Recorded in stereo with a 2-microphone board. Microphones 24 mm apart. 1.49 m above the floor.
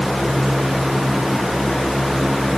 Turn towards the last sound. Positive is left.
No sound to turn to.